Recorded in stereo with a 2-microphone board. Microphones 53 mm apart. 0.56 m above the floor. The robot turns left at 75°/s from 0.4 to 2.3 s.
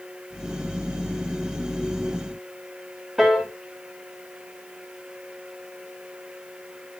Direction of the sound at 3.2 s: Centre (ahead or behind).